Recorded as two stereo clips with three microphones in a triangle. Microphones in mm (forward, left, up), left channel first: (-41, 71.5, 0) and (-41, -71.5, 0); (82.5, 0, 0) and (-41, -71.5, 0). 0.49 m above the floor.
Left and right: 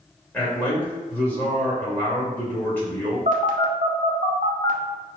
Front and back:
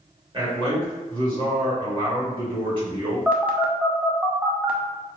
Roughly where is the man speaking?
Behind.